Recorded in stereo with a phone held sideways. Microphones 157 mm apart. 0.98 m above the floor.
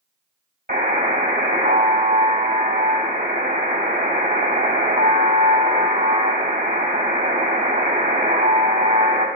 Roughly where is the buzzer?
Right.